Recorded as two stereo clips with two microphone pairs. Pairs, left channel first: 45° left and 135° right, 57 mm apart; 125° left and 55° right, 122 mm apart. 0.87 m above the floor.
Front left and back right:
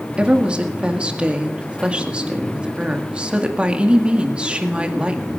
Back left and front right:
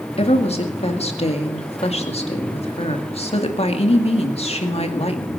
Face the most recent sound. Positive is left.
turn(degrees=155)